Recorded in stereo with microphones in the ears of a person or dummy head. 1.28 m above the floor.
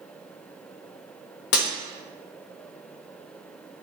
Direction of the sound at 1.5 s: 60° left (ahead or behind).